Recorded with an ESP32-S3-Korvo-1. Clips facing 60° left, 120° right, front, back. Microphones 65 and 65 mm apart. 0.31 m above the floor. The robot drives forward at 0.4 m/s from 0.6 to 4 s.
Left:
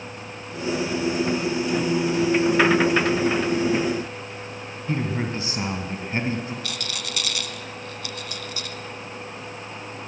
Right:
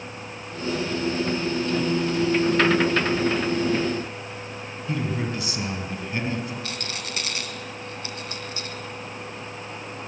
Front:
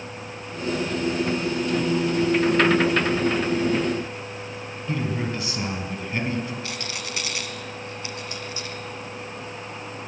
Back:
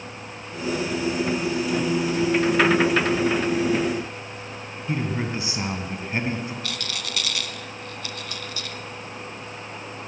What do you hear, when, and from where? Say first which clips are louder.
4.9 s a man speaking: left 1 dB, even; 115° left, 3 m
6.6 s a rattle: even, even; 65° right, 1.4 m